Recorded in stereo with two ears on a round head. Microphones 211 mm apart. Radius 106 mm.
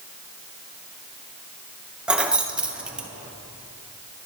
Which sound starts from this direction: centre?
Keys jangling, at 2.1 s.